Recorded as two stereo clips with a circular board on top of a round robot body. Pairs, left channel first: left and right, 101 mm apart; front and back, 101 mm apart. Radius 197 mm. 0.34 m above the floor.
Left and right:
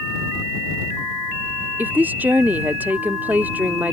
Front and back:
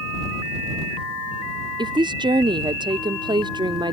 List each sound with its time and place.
1.8 s a woman speaking: 160° right